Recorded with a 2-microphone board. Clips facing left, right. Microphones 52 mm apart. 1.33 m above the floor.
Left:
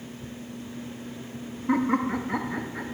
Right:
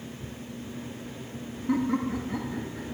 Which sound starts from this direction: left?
Laughter, at 1.7 s.